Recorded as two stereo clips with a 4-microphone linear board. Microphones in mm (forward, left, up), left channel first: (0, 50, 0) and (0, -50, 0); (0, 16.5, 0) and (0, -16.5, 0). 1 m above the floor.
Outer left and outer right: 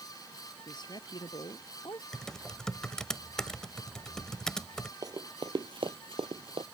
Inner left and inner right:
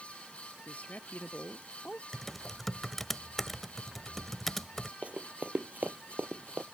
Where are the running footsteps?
40° right (ahead or behind); by 6.7 s 60° right (ahead or behind).